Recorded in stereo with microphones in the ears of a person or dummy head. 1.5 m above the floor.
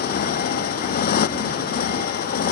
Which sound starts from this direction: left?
A motorcycle, at 0.0 s.